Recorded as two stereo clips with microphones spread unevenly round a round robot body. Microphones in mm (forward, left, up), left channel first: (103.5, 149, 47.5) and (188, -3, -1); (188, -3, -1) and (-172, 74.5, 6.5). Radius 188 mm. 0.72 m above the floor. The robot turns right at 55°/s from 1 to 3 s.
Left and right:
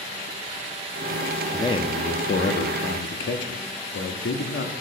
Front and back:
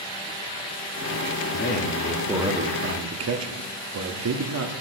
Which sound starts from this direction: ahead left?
A man speaking, at 1.5 s.